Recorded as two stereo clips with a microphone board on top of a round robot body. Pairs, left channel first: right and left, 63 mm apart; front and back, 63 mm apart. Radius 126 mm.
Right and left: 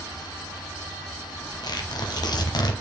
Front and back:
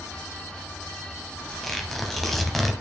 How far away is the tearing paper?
About 1.0 m.